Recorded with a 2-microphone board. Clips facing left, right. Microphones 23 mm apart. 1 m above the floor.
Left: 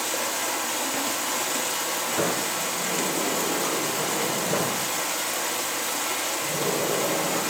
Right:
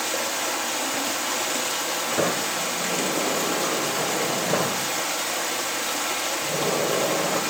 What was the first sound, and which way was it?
Running water, 20° right (ahead or behind).